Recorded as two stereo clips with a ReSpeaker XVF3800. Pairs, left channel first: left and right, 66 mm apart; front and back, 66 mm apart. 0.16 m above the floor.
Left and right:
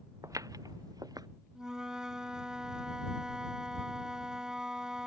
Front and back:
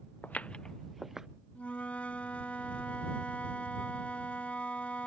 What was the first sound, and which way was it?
Footsteps, 60° right.